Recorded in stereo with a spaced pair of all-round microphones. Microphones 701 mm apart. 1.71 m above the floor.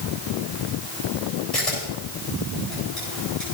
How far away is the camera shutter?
About 7.5 m.